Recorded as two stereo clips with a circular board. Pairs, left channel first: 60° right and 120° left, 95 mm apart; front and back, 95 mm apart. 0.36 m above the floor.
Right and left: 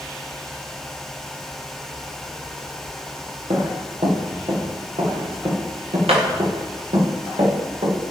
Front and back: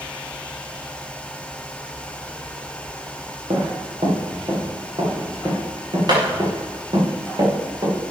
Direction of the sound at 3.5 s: 145° left.